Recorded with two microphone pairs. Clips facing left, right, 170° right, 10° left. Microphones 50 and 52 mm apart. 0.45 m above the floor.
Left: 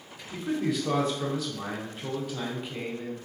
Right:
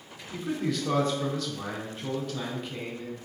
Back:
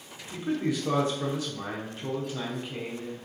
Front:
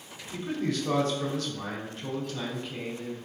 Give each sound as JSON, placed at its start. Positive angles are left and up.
{"t": 0.3, "sound": "a man speaking", "azimuth_deg": 160, "distance_m": 0.7}